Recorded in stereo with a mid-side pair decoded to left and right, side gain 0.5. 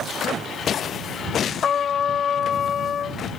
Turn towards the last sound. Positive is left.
turn(degrees=50)